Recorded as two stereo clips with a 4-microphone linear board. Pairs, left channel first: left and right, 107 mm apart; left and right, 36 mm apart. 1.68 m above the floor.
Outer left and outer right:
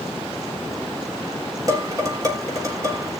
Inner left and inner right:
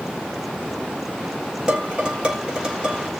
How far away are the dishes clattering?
About 3.5 m.